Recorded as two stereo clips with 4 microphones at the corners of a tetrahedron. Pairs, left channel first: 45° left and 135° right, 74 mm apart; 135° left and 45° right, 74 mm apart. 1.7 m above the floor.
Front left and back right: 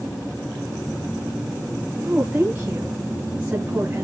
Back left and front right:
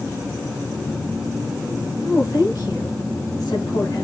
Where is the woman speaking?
160° left, 2.5 m.